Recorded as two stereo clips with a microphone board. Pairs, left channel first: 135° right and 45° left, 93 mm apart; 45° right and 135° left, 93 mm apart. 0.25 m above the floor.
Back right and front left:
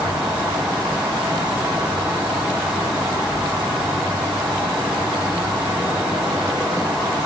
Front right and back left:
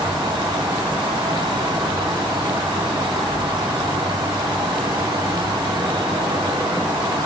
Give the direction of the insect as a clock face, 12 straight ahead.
8 o'clock.